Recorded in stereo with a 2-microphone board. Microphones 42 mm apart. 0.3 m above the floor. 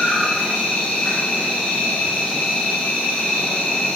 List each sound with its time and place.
0.0 s an insect: 35° left (ahead or behind), 3 m